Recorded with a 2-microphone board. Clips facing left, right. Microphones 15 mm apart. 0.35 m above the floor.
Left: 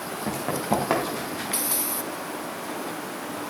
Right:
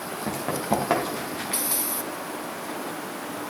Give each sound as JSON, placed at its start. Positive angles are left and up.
{"t": 0.3, "sound": "running footsteps", "side_deg": 5, "distance_m": 4.5}